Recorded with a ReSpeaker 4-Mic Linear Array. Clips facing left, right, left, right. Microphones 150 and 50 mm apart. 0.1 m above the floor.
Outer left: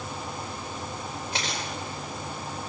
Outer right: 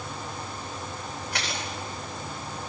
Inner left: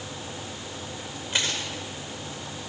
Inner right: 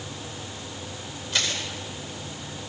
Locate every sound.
1.3 s crushing: 25° left (ahead or behind), 10 m